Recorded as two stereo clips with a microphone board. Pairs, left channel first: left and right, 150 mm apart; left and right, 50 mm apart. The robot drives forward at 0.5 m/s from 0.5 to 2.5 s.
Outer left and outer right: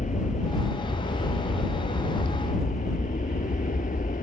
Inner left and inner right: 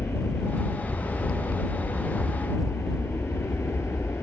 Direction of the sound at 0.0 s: 55° left (ahead or behind).